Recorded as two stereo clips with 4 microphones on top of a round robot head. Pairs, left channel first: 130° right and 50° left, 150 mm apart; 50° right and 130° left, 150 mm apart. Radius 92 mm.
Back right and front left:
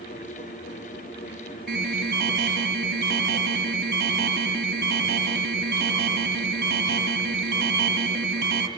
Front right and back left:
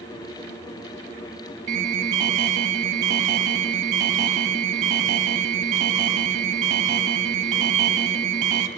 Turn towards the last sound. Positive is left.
turn(degrees=80)